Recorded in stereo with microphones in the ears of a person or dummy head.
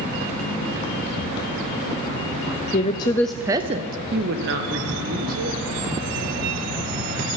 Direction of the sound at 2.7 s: 40° left (ahead or behind).